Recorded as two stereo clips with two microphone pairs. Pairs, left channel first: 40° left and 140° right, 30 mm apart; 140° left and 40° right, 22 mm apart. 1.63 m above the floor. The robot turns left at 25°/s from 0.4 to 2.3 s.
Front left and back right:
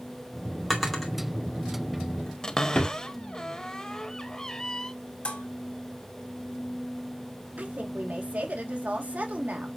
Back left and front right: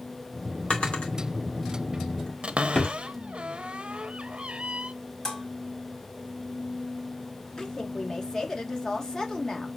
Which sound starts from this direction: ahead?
A cupboard door, at 2.4 s.